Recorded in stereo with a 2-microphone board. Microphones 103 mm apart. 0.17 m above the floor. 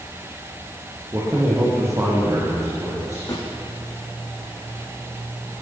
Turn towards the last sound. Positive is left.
turn(degrees=40)  # may be behind; listen again after turning